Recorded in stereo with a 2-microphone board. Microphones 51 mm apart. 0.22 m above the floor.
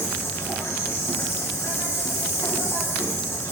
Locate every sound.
0.0 s an insect: 60° left (ahead or behind), 2 m